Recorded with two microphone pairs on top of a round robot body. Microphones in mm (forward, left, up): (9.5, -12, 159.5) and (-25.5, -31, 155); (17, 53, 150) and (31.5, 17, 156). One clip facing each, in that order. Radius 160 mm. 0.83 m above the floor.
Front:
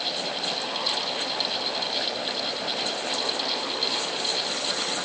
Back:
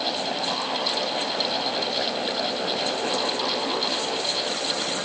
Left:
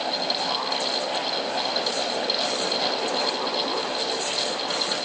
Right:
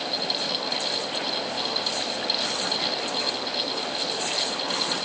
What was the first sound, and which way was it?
Only background noise.